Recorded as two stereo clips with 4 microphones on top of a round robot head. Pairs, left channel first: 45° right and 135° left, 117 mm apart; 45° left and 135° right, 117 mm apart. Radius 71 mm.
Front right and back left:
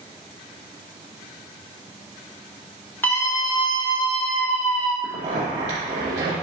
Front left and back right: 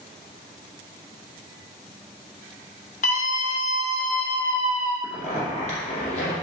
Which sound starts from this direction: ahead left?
A scream, at 3.0 s.